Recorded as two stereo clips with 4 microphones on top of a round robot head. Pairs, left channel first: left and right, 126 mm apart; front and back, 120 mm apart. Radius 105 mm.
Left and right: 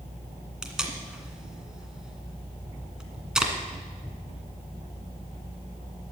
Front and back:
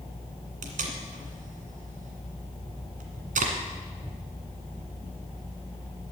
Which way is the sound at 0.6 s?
175° right.